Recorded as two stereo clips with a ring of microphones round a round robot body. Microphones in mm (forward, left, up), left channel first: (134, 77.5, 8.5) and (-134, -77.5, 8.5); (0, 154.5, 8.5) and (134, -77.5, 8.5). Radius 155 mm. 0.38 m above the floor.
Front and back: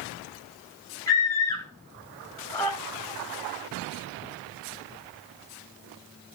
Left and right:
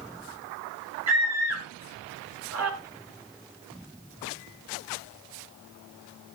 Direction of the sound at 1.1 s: 50° right.